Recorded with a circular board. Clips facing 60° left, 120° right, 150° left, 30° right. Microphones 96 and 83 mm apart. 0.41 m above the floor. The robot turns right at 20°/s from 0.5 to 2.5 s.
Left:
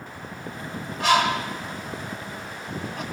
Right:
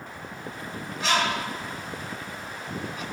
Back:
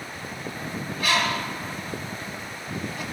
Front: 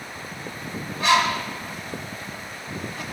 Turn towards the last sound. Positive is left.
turn(degrees=65)